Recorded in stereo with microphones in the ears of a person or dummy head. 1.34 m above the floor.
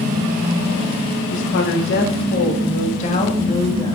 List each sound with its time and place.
1.3 s a woman speaking: 65° left (ahead or behind), 2.5 m; by 3.9 s 20° left (ahead or behind), 2.5 m